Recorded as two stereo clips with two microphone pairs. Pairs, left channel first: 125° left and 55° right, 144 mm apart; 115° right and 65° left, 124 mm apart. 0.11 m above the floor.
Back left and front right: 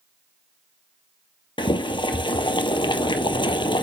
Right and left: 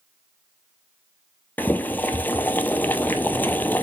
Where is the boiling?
175° left, 0.6 m.